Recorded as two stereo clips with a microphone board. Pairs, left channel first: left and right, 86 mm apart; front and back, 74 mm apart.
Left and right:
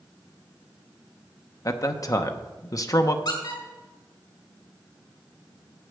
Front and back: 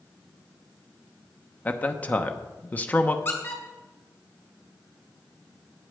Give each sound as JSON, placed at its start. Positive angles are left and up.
{"t": 1.6, "sound": "a man speaking", "azimuth_deg": 60, "distance_m": 0.9}
{"t": 3.2, "sound": "a squeak", "azimuth_deg": 60, "distance_m": 3.0}